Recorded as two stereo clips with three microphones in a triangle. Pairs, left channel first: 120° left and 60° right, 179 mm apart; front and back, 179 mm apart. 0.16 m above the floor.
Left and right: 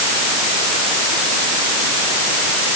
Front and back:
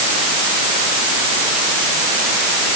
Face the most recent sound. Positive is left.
No sound to turn to.